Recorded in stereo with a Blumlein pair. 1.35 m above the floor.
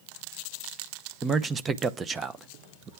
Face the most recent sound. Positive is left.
turn(degrees=-15)